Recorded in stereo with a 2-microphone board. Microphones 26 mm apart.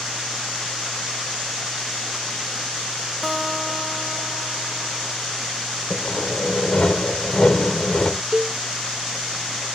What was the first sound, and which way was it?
A guitar, centre (ahead or behind).